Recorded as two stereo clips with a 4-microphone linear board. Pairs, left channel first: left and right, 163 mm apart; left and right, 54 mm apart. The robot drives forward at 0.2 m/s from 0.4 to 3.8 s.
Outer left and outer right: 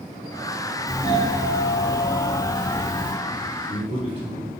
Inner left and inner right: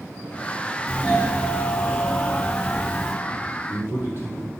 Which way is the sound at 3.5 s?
40° right (ahead or behind).